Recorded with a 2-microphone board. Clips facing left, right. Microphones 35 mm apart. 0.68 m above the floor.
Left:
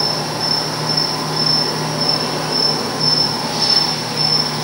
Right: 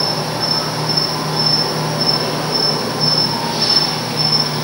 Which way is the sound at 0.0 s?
15° right (ahead or behind).